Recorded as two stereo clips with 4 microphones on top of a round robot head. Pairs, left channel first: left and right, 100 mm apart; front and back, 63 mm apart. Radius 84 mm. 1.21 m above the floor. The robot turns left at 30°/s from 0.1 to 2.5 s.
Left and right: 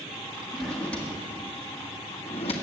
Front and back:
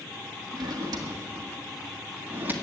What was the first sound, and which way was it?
A drawer, straight behind.